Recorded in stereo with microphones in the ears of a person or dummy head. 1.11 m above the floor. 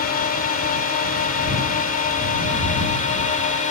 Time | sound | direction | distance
0.0 | a drone | 45° left (ahead or behind) | ?